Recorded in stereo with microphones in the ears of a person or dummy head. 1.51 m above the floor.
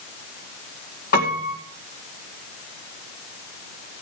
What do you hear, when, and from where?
1.1 s a piano: 45° left (ahead or behind), 1.8 m